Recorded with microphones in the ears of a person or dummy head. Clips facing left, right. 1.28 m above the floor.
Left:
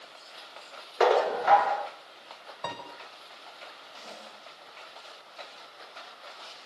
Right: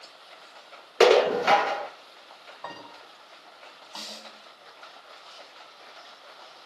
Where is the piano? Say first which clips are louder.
Left 3 dB; 40° left (ahead or behind), 5.5 m.